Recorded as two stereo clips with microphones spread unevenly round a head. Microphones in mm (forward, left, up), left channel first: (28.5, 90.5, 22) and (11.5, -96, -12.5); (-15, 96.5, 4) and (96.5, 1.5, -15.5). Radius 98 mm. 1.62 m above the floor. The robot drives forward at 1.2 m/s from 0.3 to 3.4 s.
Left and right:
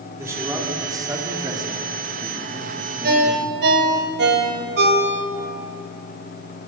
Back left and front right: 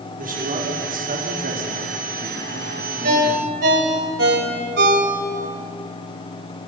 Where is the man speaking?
20° right, 6 m; by 3.6 s 45° right, 2.5 m.